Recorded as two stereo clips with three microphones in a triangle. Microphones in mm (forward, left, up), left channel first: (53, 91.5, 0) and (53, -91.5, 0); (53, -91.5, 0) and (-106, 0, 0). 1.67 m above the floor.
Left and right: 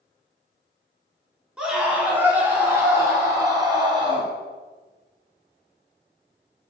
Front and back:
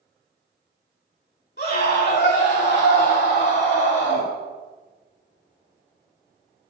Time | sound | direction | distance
1.6 | a scream | 5° right | 4 m